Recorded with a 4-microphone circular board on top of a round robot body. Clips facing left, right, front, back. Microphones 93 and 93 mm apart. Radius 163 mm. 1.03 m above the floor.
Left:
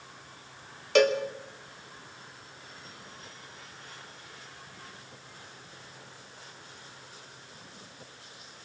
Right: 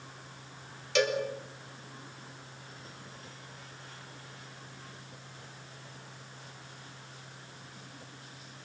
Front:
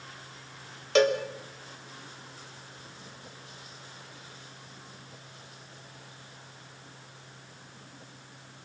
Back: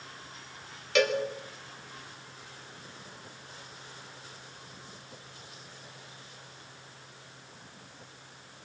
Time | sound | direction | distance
0.9 | a cowbell | 55° left | 3.5 m